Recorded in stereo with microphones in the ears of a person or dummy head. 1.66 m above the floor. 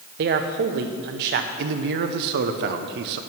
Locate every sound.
0.2 s a man speaking: 45° right (ahead or behind), 0.7 m
1.6 s a man speaking: 60° right (ahead or behind), 0.7 m